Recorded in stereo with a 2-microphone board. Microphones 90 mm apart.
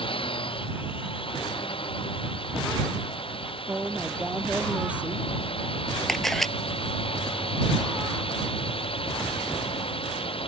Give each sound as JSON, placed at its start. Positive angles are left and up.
{"t": 0.0, "sound": "a drone", "side_deg": 75}
{"t": 3.7, "sound": "a woman speaking", "side_deg": -15}
{"t": 6.1, "sound": "a camera shutter", "side_deg": 5}